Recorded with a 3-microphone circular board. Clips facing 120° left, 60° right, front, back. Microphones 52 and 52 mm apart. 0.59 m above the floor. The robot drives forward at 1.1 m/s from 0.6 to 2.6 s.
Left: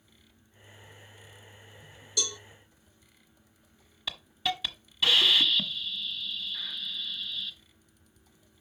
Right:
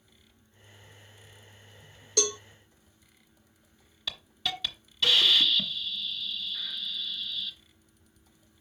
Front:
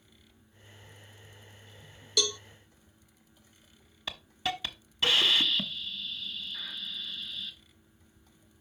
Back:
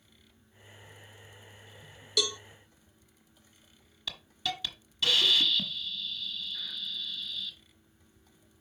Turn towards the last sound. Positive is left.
turn(degrees=45)